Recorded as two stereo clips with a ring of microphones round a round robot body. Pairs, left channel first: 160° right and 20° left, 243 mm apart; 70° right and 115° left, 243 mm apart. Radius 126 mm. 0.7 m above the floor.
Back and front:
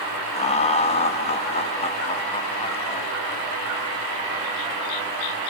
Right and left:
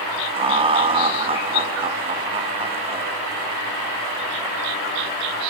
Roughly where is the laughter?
Behind.